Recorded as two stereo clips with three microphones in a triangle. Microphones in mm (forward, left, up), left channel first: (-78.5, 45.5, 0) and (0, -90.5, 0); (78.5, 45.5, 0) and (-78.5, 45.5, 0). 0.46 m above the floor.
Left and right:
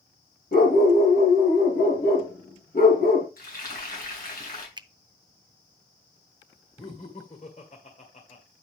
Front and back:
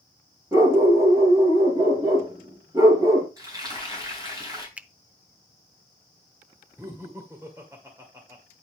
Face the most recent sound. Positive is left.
turn(degrees=115)